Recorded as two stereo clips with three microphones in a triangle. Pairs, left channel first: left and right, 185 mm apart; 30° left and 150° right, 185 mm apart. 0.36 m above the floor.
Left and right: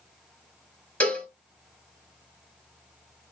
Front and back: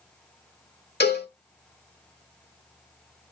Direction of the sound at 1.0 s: 10° left.